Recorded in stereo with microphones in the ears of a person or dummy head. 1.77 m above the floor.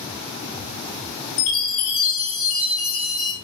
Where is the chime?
45° left (ahead or behind), 1.3 m.